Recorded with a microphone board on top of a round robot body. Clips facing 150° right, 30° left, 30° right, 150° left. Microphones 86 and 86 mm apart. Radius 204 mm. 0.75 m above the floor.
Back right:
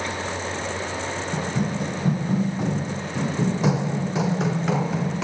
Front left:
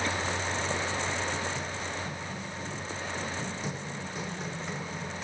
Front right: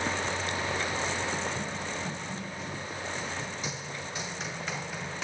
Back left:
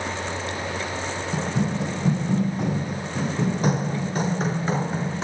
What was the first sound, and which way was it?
Running footsteps, 170° left.